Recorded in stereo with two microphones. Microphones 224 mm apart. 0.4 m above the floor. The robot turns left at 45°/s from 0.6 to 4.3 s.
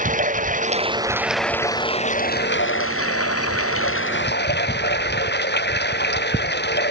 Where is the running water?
145° right; by 6.9 s 50° left.